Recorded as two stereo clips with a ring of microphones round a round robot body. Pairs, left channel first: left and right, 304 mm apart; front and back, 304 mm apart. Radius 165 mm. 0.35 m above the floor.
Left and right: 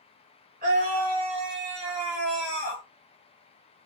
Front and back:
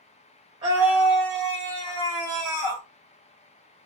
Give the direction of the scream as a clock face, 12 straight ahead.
4 o'clock.